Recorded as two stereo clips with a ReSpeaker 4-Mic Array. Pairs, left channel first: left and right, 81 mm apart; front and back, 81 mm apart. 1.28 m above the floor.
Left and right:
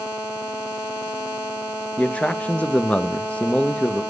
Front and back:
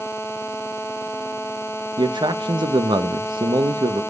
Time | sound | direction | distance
2.0 | a man speaking | 165° left | 1.2 m